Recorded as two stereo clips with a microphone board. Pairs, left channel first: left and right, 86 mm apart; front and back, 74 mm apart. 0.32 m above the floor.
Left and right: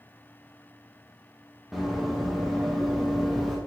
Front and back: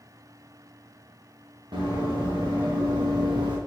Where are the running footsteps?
Straight behind, 3.5 m.